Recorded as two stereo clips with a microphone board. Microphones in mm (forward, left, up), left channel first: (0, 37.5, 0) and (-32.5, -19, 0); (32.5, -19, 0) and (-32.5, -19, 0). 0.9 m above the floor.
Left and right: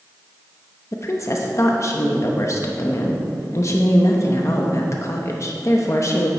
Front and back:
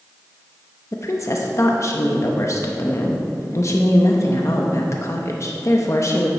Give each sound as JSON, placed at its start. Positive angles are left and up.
{"t": 0.9, "sound": "a woman speaking", "azimuth_deg": 30, "distance_m": 0.8}